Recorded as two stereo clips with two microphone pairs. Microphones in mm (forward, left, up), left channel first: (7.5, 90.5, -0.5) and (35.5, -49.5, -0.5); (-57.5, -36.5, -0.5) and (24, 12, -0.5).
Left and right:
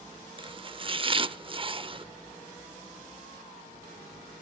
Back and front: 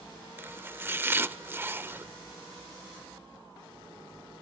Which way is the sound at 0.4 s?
35° right.